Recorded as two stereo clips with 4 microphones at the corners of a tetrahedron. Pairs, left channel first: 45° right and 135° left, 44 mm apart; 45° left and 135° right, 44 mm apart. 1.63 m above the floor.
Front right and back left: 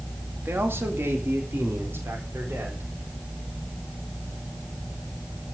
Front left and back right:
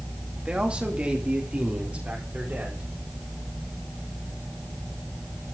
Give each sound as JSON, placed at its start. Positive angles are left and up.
{"t": 0.5, "sound": "a man speaking", "azimuth_deg": 160, "distance_m": 2.5}